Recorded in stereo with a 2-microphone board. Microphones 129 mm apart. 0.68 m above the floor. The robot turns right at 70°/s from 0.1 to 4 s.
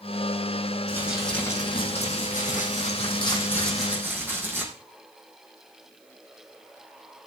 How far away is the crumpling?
About 4.5 m.